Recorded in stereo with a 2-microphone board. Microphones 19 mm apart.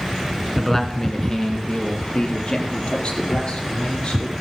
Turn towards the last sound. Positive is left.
turn(degrees=60)  # may be behind; listen again after turning